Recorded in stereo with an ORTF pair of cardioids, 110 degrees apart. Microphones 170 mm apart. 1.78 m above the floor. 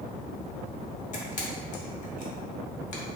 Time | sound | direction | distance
1.1 | a camera shutter | 50° left | 0.9 m